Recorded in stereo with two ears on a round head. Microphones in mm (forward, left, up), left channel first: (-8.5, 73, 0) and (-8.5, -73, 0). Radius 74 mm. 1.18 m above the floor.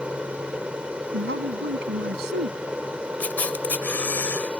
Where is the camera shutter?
10° left (ahead or behind).